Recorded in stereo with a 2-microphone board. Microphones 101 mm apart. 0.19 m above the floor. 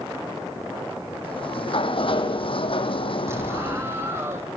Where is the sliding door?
60° left (ahead or behind), 1.5 m.